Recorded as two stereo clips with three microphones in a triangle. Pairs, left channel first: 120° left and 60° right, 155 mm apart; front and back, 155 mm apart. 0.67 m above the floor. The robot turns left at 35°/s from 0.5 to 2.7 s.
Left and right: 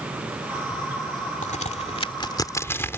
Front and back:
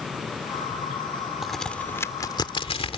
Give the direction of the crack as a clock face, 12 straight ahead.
9 o'clock.